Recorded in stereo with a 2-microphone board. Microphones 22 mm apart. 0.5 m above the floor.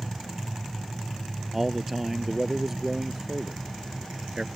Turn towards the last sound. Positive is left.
turn(degrees=-20)  # may be behind; listen again after turning